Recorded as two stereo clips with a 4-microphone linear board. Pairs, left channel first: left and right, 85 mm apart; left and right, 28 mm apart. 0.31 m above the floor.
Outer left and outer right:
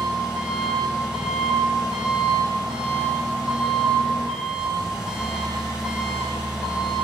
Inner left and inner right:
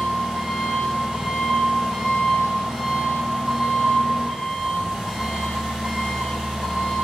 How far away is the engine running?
About 8.5 m.